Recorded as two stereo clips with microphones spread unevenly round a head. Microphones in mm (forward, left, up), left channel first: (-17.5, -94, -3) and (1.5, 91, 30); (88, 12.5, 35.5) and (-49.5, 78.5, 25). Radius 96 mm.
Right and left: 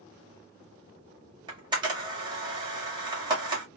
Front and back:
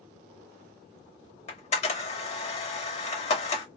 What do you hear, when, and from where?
1.5 s a camera shutter: 20° left, 1.6 m